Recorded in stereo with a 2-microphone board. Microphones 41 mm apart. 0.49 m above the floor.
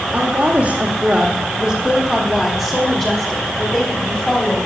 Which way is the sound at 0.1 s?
40° right (ahead or behind).